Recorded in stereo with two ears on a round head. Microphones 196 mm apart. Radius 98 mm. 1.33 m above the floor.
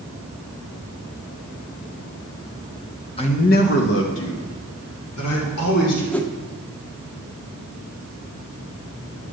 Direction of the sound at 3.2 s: 25° left (ahead or behind).